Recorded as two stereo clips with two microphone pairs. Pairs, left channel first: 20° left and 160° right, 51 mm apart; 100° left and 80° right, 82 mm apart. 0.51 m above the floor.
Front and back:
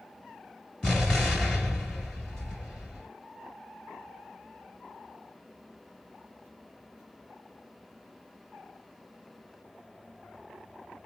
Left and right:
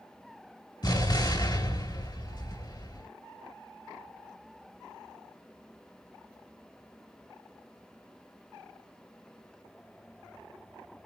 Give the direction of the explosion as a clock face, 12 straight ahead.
9 o'clock.